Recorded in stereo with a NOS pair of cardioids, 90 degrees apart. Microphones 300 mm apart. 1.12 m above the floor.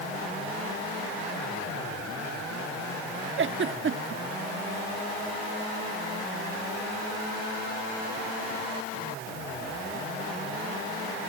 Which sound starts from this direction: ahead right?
A giggle, at 3.4 s.